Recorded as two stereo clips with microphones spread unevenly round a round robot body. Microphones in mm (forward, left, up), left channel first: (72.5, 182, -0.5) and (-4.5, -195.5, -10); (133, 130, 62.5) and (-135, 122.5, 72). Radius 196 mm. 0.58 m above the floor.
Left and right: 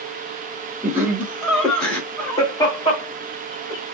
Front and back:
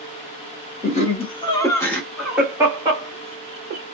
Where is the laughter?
25° right, 1.3 m; by 3.8 s 140° left, 1.4 m.